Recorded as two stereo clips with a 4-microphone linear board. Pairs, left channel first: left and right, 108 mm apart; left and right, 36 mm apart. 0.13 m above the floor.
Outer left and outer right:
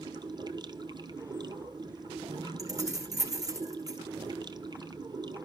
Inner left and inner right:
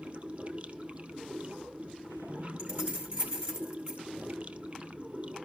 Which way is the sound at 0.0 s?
40° right (ahead or behind).